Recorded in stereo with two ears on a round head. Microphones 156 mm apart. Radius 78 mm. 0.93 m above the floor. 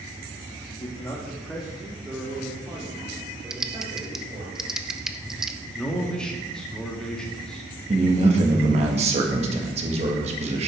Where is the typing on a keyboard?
Centre (ahead or behind), 0.5 m.